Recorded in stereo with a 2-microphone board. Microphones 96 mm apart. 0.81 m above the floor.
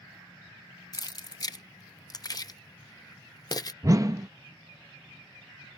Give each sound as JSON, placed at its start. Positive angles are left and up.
{"t": 0.9, "sound": "keys jangling", "side_deg": 40}
{"t": 3.8, "sound": "a whoosh", "side_deg": -35}